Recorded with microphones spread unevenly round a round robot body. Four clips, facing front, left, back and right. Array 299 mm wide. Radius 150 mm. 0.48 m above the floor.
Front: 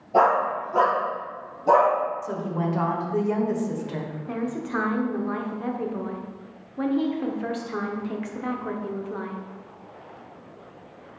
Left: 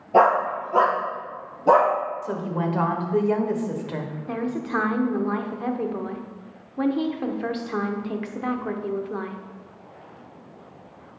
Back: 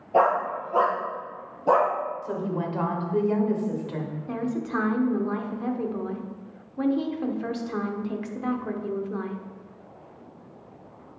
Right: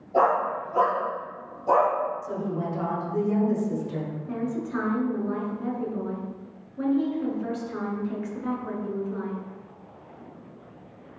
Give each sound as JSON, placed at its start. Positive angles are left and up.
{"t": 0.1, "sound": "a dog barking", "azimuth_deg": 80, "distance_m": 3.5}
{"t": 2.2, "sound": "a woman speaking", "azimuth_deg": 85, "distance_m": 1.7}
{"t": 4.3, "sound": "a woman speaking", "azimuth_deg": 110, "distance_m": 1.2}